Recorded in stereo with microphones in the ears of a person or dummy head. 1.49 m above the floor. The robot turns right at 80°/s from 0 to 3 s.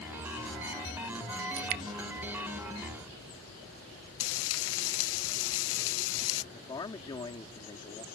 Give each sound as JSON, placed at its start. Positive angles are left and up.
{"t": 1.6, "sound": "dripping", "side_deg": -65}
{"t": 4.2, "sound": "frying", "side_deg": 75}
{"t": 6.5, "sound": "a man speaking", "side_deg": 25}